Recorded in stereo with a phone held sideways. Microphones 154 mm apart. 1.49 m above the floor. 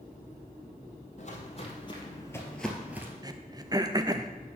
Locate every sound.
1.2 s footsteps: 50° left (ahead or behind), 2.5 m; by 3.1 s 15° right (ahead or behind), 1.6 m
3.2 s throat clearing: 25° right (ahead or behind), 0.5 m